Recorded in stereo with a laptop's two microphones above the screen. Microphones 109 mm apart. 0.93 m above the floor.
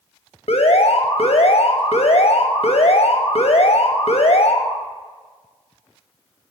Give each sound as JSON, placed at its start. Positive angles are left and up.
{"t": 0.5, "sound": "an alarm", "side_deg": 70, "distance_m": 0.7}